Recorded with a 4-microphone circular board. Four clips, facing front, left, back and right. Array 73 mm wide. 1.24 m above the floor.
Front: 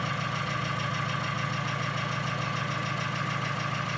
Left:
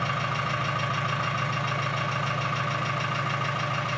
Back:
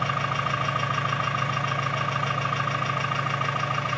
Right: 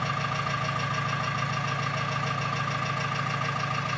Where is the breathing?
No breathing in this recording.